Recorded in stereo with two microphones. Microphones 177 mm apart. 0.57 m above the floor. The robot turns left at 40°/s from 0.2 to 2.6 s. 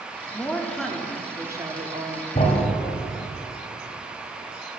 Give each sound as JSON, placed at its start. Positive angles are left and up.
{"t": 0.3, "sound": "a woman speaking", "azimuth_deg": 20, "distance_m": 0.7}
{"t": 2.4, "sound": "a thud", "side_deg": 45, "distance_m": 1.4}